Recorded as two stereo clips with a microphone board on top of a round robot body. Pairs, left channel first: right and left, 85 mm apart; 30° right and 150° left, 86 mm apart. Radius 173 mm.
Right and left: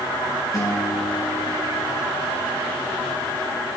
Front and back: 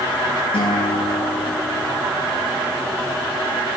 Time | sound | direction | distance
0.5 | a guitar | 40° right | 7.5 m